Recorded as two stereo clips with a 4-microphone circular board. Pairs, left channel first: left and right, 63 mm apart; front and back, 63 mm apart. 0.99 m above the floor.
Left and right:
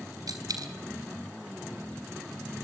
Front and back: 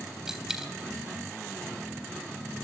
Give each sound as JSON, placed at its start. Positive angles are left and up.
{"t": 0.3, "sound": "a dropped coin", "azimuth_deg": -100, "distance_m": 3.5}